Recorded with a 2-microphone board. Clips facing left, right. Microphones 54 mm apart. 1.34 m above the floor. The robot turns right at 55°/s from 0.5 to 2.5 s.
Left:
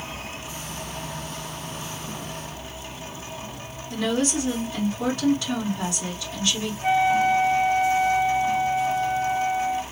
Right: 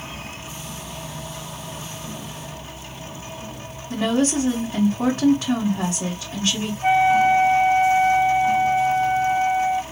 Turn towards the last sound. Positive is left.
turn(degrees=-25)  # may be behind; listen again after turning